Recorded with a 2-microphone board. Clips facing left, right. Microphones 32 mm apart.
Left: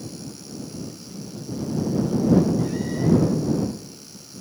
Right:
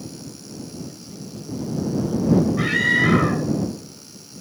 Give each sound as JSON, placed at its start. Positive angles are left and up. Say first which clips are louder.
{"t": 0.9, "sound": "a man speaking", "louder": "even", "side_deg": -5}
{"t": 2.6, "sound": "a scream", "louder": "right 7 dB", "side_deg": -85}